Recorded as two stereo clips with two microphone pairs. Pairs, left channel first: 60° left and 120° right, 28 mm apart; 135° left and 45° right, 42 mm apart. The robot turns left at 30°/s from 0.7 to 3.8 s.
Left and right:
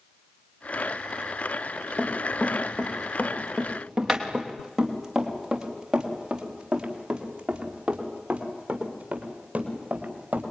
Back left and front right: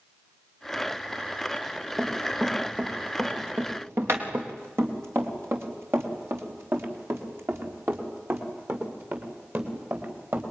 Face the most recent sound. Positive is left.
turn(degrees=-85)